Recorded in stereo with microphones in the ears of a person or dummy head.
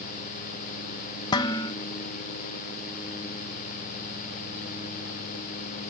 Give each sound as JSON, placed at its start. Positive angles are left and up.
{"t": 1.3, "sound": "dishes clattering", "side_deg": 30, "distance_m": 0.5}